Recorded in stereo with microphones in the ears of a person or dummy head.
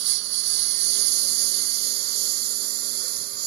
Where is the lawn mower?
60° right (ahead or behind); by 3.5 s 50° right (ahead or behind).